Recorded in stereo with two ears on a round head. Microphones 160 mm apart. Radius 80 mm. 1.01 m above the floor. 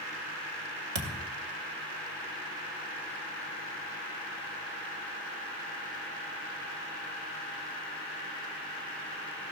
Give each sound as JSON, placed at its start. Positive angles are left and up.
{"t": 0.9, "sound": "a thud", "side_deg": -65, "distance_m": 2.0}